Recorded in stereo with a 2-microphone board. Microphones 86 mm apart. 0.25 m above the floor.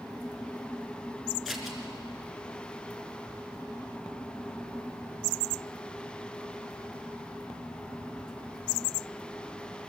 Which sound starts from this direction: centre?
Scissors, at 1.4 s.